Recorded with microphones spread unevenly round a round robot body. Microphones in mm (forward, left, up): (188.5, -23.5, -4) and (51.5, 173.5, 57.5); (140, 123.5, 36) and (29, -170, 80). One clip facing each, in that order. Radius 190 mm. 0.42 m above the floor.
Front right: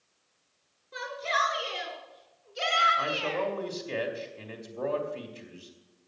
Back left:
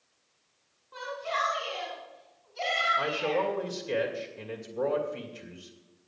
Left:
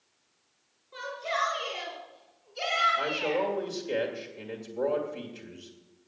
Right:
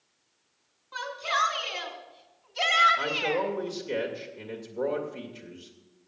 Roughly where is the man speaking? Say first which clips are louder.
Back left 4 dB, even; behind.